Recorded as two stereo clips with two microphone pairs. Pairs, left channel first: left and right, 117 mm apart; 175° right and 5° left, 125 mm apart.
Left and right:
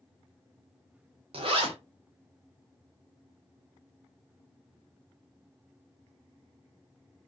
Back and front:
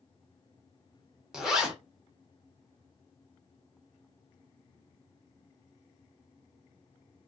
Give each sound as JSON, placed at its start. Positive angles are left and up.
{"t": 1.3, "sound": "a zipper", "azimuth_deg": -80, "distance_m": 0.8}